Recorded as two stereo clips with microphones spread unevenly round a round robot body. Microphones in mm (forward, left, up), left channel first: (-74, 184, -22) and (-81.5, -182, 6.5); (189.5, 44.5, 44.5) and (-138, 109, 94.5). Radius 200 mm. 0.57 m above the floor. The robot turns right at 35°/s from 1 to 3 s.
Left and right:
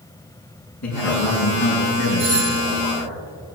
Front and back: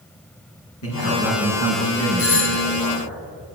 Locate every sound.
0.8 s a man speaking: 35° left, 5 m; by 3.2 s 105° left, 5 m
2.2 s a doorbell: 10° left, 2.5 m; by 2.6 s 30° left, 2.5 m